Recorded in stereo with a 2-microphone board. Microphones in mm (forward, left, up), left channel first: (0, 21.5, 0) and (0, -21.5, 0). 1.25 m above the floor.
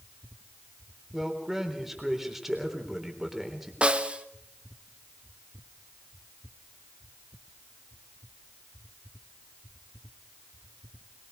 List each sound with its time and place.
1.1 s a man speaking: 10° right (ahead or behind), 3.5 m
3.8 s a snare drum: 25° right (ahead or behind), 1.0 m